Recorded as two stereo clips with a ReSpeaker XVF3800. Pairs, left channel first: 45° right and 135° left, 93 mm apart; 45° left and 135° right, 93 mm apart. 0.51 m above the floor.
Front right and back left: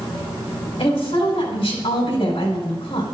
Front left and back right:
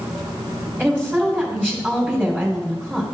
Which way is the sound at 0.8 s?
45° right.